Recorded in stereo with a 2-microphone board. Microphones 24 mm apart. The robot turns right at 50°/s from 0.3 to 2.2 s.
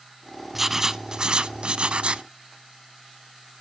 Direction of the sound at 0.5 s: 170° right.